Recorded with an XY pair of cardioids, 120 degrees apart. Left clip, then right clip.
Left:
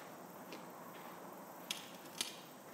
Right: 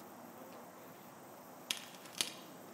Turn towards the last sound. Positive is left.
turn(degrees=-35)